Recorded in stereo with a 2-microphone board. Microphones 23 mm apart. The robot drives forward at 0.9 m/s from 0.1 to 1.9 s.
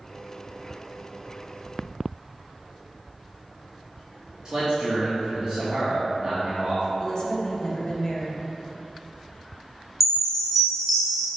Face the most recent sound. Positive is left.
turn(degrees=0)  # may be behind; listen again after turning